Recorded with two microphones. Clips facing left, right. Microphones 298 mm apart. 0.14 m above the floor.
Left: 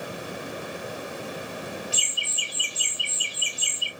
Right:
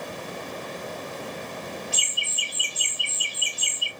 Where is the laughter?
20° right (ahead or behind), 1.2 m.